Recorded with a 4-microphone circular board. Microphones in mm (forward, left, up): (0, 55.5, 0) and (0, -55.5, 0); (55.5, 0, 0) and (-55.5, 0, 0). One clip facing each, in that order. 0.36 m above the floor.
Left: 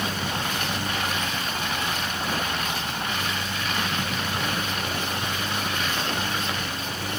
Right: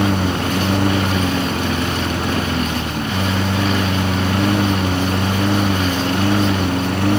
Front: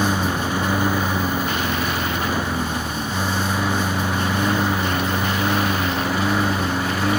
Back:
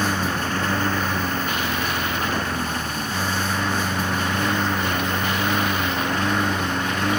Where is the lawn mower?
80° right; by 7.2 s 85° right.